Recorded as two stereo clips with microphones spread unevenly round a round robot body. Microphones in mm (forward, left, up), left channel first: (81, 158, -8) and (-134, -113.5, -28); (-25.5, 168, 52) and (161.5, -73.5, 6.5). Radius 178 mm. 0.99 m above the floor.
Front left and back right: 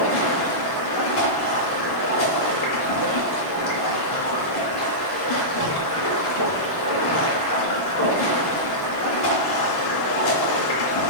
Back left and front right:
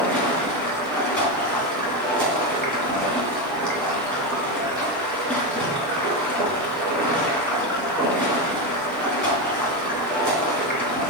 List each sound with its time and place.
0.0 s running water: 45° left, 2.5 m